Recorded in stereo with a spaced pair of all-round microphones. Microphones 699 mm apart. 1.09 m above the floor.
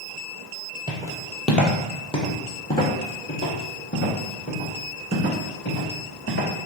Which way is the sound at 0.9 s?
5° right (ahead or behind).